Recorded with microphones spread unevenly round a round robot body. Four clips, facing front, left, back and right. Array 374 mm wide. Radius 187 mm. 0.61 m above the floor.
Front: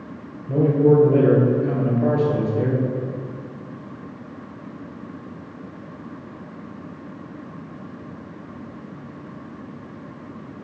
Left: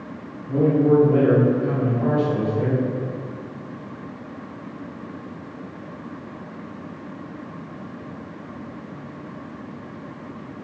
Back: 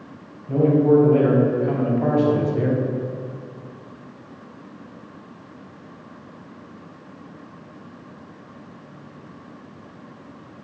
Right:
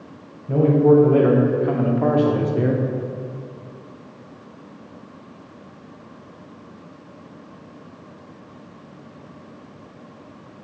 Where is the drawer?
No drawer in this recording.